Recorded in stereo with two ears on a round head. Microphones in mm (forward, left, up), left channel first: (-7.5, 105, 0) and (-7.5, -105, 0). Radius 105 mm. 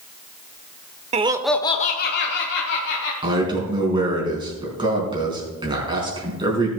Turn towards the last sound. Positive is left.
turn(degrees=-20)  # may be behind; listen again after turning